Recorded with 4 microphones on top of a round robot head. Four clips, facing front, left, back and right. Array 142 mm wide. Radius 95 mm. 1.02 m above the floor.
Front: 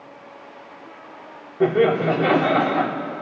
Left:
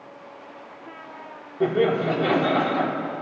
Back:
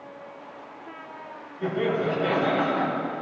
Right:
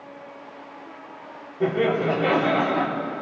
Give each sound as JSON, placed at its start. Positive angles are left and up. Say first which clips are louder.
{"t": 1.6, "sound": "laughter", "louder": "left 1 dB, front 8 dB", "azimuth_deg": 20, "distance_m": 2.5}